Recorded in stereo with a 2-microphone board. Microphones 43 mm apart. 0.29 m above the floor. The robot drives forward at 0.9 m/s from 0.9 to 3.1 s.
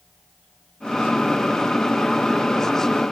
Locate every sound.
Only background noise.